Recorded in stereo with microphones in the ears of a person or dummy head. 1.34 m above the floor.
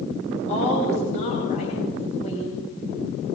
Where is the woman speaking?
40° left (ahead or behind), 9.5 m.